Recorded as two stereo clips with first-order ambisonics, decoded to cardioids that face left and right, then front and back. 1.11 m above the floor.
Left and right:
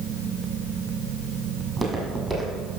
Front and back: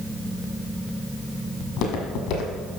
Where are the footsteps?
10° right, 1.8 m.